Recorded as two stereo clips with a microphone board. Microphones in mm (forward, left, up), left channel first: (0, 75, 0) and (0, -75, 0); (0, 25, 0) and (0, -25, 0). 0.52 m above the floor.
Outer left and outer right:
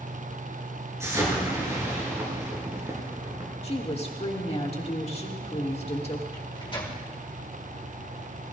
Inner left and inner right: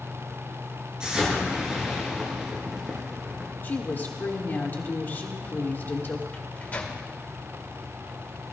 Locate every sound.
1.0 s an explosion: 20° right (ahead or behind), 4 m
3.6 s a woman speaking: 45° left (ahead or behind), 1.7 m
6.3 s a microwave: 35° left (ahead or behind), 1.7 m